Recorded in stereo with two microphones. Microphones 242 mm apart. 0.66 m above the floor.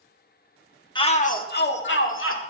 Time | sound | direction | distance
0.9 | a shout | 20° left (ahead or behind) | 1.2 m